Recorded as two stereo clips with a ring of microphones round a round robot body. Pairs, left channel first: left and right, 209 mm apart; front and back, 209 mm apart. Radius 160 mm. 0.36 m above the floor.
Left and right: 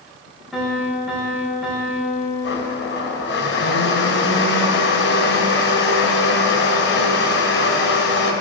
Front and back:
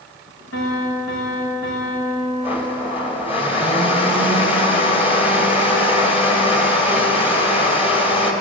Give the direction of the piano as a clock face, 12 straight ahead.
12 o'clock.